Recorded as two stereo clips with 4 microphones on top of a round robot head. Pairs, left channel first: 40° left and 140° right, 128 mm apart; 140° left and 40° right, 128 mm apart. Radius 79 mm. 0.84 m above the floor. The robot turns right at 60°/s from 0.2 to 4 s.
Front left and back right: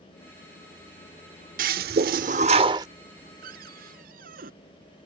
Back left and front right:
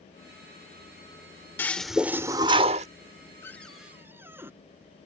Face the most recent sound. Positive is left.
turn(degrees=-115)